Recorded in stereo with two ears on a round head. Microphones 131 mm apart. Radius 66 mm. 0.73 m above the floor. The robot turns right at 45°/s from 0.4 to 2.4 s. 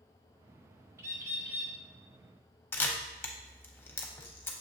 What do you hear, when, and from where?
1.0 s a bird: 20° right (ahead or behind), 0.6 m; by 1.7 s 15° right (ahead or behind), 0.6 m
2.7 s a camera shutter: 15° left (ahead or behind), 0.5 m